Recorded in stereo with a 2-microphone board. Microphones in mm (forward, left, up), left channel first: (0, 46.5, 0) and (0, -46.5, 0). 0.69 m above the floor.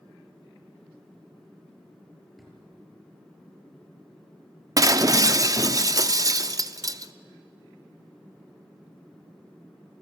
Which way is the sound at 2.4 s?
Centre (ahead or behind).